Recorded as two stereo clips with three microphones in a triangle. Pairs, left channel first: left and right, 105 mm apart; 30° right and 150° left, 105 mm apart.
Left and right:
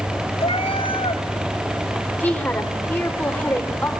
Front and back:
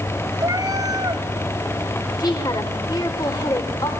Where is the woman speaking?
15° left, 3 m.